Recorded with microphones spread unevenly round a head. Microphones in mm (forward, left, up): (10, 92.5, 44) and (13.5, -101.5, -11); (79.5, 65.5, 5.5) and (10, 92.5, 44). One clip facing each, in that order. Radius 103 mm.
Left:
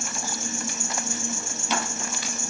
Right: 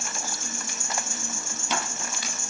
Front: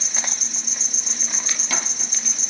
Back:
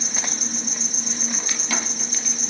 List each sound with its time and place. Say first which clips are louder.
0.0 s an insect: left 4 dB, back 2 dB; 130° left, 2 m